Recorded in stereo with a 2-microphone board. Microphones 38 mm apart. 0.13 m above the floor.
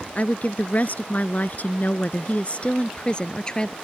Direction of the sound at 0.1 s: 45° left (ahead or behind).